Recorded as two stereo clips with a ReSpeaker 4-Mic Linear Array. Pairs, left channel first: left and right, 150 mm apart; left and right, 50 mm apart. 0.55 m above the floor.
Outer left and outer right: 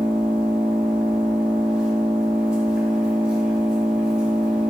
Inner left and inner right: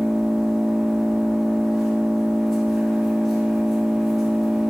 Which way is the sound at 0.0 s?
5° right (ahead or behind).